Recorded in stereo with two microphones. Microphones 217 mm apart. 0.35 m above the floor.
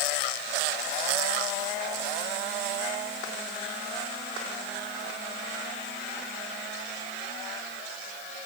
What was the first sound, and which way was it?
Only background noise.